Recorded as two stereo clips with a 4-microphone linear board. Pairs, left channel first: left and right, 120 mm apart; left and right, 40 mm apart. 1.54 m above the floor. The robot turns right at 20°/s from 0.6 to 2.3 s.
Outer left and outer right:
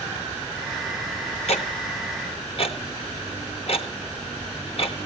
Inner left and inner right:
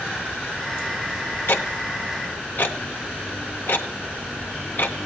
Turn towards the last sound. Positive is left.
turn(degrees=50)  # may be behind; listen again after turning